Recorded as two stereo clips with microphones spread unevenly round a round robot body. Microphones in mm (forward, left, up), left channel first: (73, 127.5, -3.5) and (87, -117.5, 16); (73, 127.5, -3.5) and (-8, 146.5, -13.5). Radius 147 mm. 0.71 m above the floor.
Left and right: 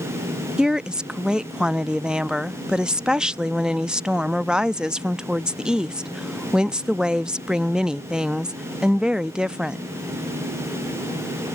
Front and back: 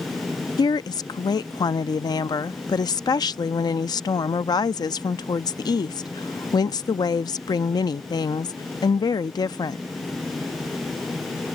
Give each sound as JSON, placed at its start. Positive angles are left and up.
{"t": 0.6, "sound": "a woman speaking", "azimuth_deg": 5}